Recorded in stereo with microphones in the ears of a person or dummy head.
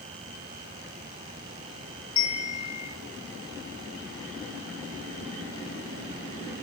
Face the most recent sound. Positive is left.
turn(degrees=80)